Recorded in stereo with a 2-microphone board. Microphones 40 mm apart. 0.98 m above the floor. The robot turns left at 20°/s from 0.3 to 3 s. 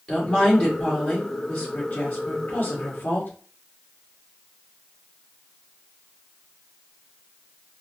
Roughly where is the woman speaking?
Behind.